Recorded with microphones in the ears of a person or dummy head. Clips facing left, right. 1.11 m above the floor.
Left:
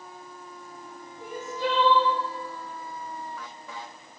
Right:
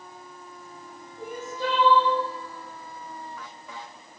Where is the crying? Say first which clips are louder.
Left 1 dB; 85° right, 7.5 m.